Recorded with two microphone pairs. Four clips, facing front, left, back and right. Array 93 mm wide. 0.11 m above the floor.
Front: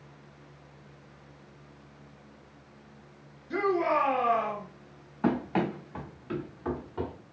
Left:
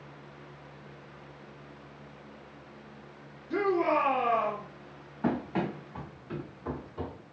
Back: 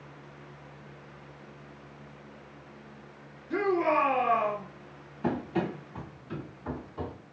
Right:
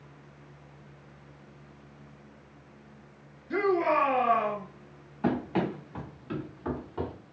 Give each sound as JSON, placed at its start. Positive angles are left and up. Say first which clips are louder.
{"t": 3.5, "sound": "a shout", "louder": "right 1 dB, back 1 dB", "azimuth_deg": -80, "distance_m": 1.8}
{"t": 5.2, "sound": "running footsteps", "louder": "right 2 dB, front 2 dB", "azimuth_deg": -15, "distance_m": 1.5}